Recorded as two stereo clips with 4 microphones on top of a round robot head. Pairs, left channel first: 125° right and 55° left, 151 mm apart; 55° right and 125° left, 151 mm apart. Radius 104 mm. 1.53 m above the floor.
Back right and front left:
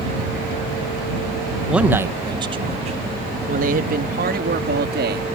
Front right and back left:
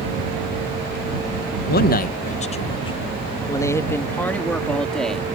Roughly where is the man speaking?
Ahead right.